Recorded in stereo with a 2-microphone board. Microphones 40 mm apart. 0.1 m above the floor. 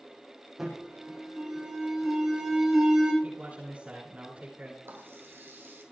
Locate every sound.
0.6 s an alarm: 10° right (ahead or behind), 7 m
3.2 s a man speaking: 45° right (ahead or behind), 8.5 m
4.8 s a running tap: 70° right (ahead or behind), 2.5 m